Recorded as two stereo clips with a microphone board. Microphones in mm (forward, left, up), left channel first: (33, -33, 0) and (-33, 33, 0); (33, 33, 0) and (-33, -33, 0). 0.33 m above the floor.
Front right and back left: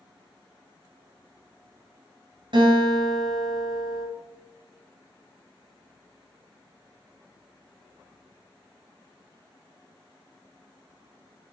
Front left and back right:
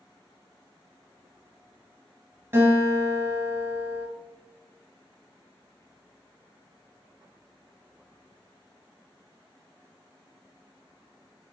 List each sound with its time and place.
2.5 s a guitar: 160° left, 1.2 m